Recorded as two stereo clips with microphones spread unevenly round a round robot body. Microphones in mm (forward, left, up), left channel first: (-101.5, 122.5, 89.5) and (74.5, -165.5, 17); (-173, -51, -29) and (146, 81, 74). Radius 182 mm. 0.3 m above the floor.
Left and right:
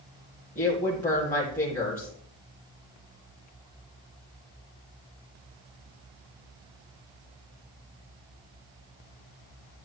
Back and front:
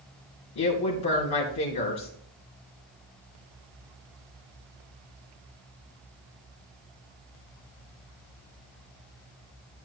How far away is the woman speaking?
About 2.5 m.